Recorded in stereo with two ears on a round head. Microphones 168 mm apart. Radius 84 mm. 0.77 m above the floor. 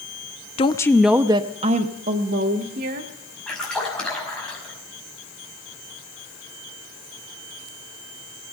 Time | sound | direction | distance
0.6 | a woman speaking | 30° left (ahead or behind) | 0.6 m
3.5 | a splash | 5° left (ahead or behind) | 5 m